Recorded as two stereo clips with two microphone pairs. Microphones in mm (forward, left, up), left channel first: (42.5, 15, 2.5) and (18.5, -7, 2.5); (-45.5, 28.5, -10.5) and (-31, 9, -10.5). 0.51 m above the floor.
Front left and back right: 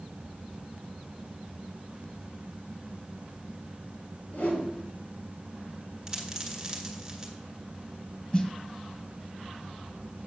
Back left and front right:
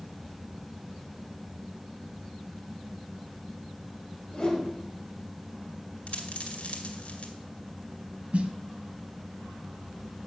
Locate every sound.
4.3 s a whoosh: 80° left, 4.5 m
6.1 s a dropped coin: 145° left, 2 m
8.3 s a snare drum: 20° right, 1.0 m